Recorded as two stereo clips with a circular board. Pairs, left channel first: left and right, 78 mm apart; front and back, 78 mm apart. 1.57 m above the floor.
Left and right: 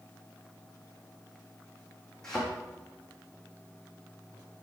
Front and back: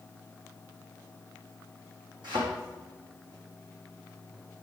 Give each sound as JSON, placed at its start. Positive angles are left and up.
{"t": 2.2, "sound": "a thud", "azimuth_deg": 175, "distance_m": 4.5}